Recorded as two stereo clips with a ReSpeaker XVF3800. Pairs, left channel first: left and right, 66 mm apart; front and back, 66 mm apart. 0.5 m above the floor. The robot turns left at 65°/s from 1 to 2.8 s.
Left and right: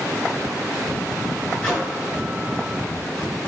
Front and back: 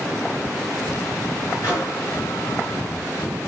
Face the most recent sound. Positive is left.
turn(degrees=-55)